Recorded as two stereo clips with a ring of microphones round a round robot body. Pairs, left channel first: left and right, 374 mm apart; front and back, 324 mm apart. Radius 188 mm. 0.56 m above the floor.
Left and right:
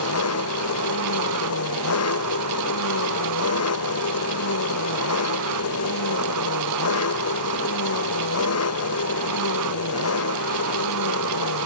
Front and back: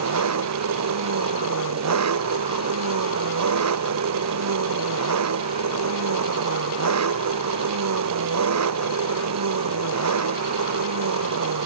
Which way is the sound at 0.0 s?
140° left.